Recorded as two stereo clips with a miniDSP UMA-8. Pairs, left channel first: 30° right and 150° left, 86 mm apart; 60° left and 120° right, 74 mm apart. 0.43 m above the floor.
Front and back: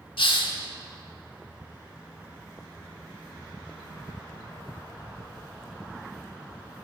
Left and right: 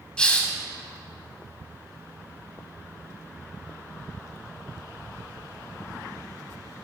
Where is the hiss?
15° right, 0.6 m.